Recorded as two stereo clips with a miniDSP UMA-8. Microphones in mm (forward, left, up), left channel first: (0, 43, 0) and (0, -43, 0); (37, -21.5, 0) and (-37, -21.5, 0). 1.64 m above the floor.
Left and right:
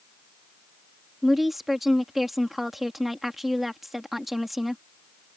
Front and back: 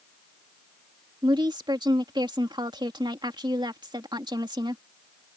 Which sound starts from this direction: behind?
A woman speaking, at 1.2 s.